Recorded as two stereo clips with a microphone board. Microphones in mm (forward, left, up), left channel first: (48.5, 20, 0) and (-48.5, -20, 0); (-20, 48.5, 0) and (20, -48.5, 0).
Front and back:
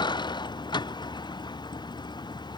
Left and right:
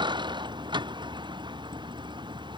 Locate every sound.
0.0 s a vehicle: 25° right